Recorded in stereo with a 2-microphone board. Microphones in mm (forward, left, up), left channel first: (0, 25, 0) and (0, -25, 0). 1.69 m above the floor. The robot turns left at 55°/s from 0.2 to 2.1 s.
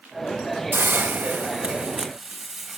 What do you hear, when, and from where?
0.7 s a hiss: 95° right, 1.2 m; by 2.8 s 170° right, 1.2 m